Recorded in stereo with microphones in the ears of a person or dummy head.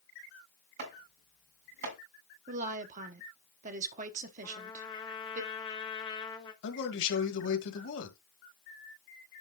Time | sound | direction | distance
0.8 | chopping | 50° right (ahead or behind) | 3.5 m
2.5 | a woman speaking | 45° right (ahead or behind) | 0.9 m
4.4 | a trumpet | 25° left (ahead or behind) | 1.2 m
6.6 | a man speaking | 65° left (ahead or behind) | 2 m